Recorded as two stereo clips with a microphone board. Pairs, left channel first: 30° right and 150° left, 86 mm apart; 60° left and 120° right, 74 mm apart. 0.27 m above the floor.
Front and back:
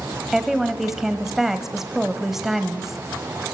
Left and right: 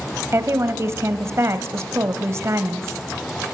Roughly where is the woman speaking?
Behind right.